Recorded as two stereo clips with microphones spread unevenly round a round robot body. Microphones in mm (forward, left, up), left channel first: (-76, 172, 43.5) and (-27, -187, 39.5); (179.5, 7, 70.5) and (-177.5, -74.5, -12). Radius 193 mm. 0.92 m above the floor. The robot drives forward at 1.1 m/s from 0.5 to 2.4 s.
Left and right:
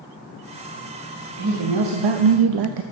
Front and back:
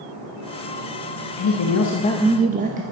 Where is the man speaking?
25° right, 1.2 m; by 2.8 s 105° right, 0.6 m.